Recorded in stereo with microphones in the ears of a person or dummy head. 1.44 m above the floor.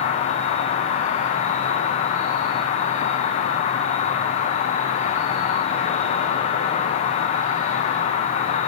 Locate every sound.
0.0 s an insect: 40° left (ahead or behind), 1.2 m